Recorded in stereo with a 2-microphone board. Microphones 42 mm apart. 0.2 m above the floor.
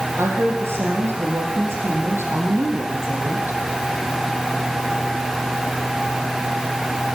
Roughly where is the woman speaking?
Right.